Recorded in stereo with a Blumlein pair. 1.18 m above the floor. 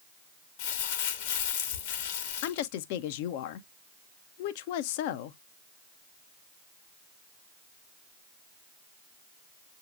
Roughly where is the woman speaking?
Ahead left.